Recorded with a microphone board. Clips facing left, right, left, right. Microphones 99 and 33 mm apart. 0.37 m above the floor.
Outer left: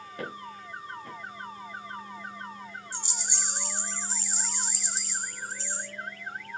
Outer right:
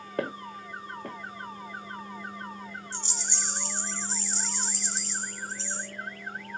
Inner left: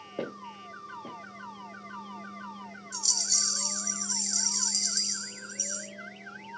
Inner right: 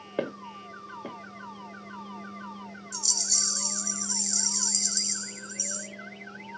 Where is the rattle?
10° left (ahead or behind), 1.2 m.